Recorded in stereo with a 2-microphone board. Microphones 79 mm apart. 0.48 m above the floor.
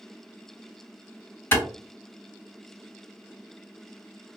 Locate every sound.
1.5 s a clap: 25° left (ahead or behind), 2.5 m